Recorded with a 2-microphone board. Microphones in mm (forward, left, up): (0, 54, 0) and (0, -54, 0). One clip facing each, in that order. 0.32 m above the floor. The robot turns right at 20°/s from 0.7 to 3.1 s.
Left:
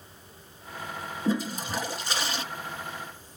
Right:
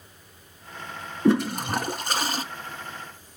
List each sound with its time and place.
1.2 s a toilet flushing: 65° right (ahead or behind), 1.1 m; by 2.4 s 40° right (ahead or behind), 1.1 m